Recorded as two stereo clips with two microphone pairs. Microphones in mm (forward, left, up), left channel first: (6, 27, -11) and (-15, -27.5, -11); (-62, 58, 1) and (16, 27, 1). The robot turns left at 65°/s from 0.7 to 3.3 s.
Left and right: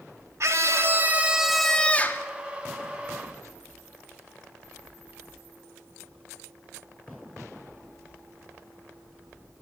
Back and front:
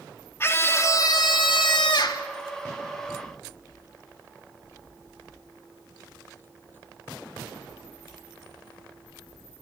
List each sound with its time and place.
0.4 s a scream: 145° right, 2.5 m; by 2.3 s 115° left, 2.5 m